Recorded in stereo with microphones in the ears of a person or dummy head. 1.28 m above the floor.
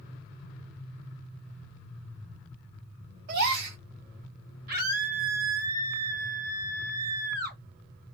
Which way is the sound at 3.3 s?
60° right (ahead or behind).